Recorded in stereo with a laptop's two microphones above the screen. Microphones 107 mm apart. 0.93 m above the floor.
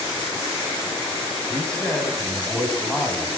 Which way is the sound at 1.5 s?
5° left (ahead or behind).